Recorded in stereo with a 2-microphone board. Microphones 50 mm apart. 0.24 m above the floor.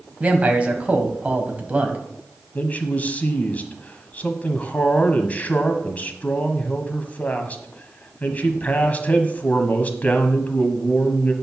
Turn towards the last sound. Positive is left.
turn(degrees=30)  # may be behind; listen again after turning